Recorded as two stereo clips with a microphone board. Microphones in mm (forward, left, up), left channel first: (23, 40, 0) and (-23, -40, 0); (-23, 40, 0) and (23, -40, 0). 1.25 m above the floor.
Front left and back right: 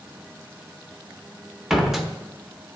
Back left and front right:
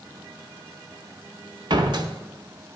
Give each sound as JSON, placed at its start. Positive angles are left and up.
{"t": 1.7, "sound": "a door slam", "azimuth_deg": -35, "distance_m": 0.6}